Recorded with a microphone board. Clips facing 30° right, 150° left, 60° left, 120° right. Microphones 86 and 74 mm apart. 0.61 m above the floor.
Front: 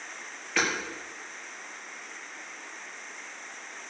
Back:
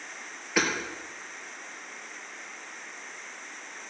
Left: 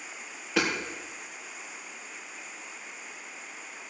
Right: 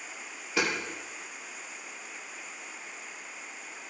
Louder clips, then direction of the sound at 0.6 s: Back 1 dB, left 2 dB; 75° left.